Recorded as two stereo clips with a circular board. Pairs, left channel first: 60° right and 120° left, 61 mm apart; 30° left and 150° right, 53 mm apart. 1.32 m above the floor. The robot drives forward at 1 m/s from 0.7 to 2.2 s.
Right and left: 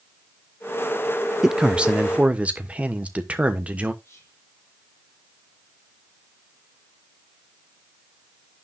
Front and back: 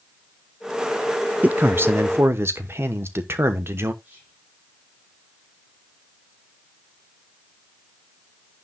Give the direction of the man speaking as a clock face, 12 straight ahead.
6 o'clock.